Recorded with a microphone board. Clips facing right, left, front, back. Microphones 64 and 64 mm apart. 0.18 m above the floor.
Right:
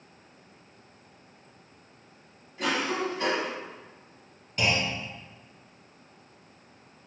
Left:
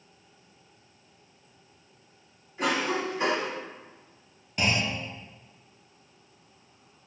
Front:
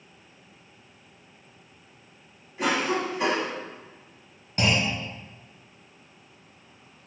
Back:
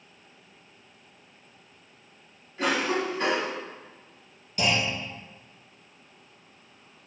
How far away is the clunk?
About 1.0 m.